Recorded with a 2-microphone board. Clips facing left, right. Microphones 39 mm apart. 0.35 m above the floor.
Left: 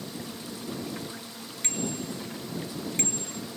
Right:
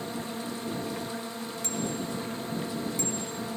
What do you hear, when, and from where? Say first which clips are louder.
0.0 s a drone: right 4 dB; 40° right (ahead or behind)
1.6 s a bicycle bell: left 1 dB; 55° left (ahead or behind)